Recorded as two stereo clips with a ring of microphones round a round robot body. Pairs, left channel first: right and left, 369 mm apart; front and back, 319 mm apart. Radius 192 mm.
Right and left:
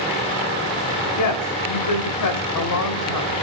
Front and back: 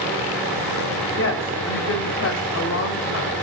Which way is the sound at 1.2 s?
55° right.